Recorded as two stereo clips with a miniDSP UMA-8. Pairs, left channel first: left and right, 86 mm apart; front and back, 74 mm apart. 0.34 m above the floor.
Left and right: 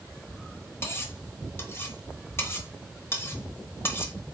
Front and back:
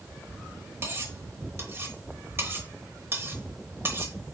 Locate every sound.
0.8 s cutlery clinking: 140° left, 0.9 m